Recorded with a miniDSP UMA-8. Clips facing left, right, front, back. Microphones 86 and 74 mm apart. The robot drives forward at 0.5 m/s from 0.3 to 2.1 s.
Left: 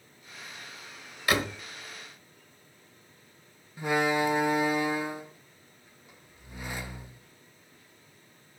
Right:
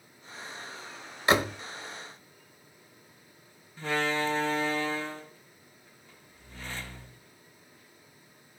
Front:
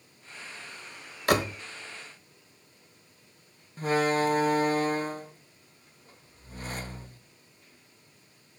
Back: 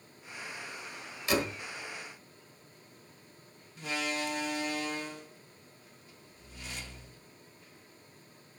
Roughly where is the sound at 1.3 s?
Ahead right.